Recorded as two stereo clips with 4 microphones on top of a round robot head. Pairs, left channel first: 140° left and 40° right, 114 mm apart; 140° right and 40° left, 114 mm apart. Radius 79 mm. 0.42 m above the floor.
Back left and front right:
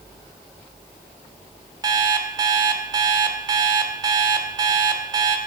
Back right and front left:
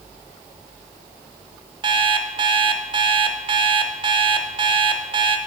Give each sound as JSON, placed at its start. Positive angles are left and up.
{"t": 1.8, "sound": "an alarm clock", "azimuth_deg": 5, "distance_m": 1.0}